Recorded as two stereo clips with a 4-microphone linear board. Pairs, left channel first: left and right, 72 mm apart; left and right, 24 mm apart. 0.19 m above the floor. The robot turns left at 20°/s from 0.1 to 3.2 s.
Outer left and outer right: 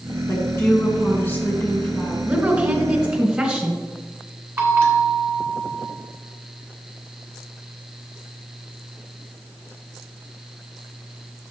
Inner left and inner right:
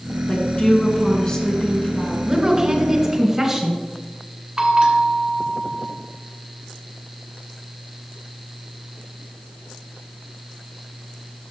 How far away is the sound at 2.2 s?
About 1.8 m.